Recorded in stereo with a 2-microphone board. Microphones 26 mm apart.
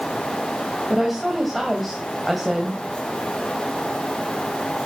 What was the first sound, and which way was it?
A woman speaking, centre (ahead or behind).